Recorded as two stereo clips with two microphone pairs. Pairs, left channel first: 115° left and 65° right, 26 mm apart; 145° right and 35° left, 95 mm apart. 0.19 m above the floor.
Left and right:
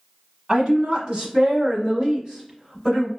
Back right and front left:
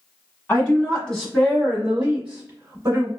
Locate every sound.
0.5 s a woman speaking: 90° right, 1.5 m; by 3.1 s 40° left, 1.4 m